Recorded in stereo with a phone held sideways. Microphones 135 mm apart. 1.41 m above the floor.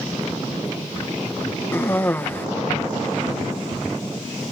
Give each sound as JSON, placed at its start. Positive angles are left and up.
{"t": 1.7, "sound": "a cough", "side_deg": 15}